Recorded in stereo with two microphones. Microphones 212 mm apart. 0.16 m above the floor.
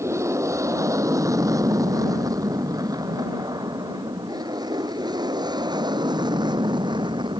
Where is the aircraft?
15° right (ahead or behind); by 7.4 s 20° right (ahead or behind).